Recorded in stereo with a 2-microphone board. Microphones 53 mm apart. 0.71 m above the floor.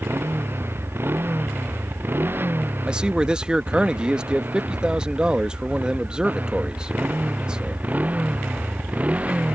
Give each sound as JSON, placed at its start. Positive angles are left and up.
{"t": 0.0, "sound": "a motorcycle", "side_deg": -45}
{"t": 2.9, "sound": "a man speaking", "side_deg": -15}